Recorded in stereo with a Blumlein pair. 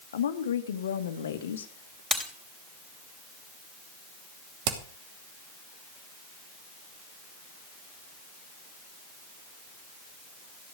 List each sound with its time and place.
0.1 s a woman speaking: 65° left, 1.6 m
2.1 s breaking glass: 5° left, 3.5 m
4.7 s hammering: 45° right, 2.5 m